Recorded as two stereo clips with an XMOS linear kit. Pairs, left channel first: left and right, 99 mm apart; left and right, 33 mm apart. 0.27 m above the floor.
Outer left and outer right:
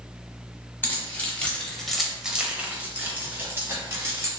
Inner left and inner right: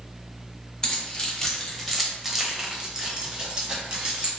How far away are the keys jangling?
About 1.0 m.